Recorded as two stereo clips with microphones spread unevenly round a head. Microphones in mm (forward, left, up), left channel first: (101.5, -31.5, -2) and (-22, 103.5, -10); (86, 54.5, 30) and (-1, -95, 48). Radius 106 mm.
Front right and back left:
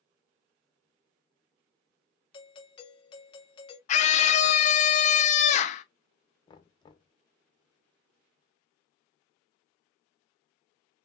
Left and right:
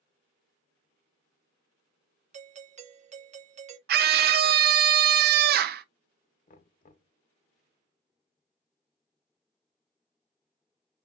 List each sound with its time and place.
2.3 s a doorbell: 100° right, 0.5 m
3.9 s a scream: 100° right, 0.5 m
6.5 s knocking: 15° left, 0.9 m